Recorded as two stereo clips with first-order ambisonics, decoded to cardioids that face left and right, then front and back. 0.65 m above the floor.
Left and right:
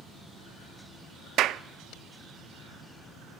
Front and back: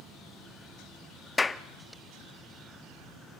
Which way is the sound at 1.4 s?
75° right.